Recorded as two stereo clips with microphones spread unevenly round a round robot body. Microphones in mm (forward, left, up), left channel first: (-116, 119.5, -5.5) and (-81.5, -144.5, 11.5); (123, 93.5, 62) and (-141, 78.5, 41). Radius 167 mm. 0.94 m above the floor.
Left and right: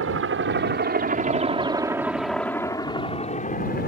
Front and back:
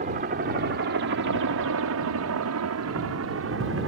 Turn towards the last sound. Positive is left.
turn(degrees=150)